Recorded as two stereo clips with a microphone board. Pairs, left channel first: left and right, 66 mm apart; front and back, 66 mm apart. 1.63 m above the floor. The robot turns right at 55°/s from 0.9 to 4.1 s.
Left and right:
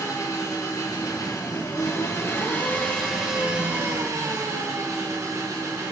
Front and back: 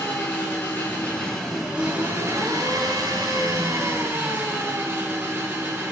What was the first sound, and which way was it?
An engine running, 60° left.